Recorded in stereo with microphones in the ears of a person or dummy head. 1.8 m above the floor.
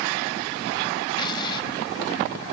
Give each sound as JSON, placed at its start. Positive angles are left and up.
{"t": 1.2, "sound": "an explosion", "side_deg": 25}